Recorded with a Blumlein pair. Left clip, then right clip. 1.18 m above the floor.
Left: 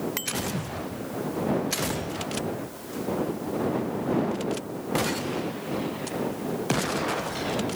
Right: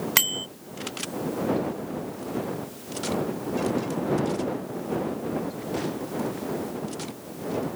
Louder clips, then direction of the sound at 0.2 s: Right 6 dB; 60° right.